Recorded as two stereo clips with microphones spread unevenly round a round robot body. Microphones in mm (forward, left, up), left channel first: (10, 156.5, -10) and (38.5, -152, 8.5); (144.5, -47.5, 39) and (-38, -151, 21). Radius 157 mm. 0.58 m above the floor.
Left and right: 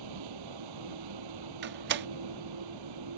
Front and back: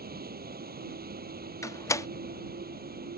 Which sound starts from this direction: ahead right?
A door slam, at 1.6 s.